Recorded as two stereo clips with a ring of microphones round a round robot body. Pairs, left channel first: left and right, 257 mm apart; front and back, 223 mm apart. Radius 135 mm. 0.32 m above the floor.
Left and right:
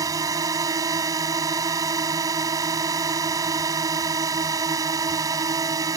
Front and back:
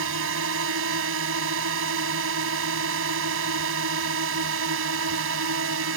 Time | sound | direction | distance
0.0 | a drone | 165° right | ?